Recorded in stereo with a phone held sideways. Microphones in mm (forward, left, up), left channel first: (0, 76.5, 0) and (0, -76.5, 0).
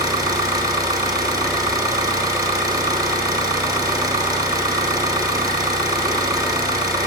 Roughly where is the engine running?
Right.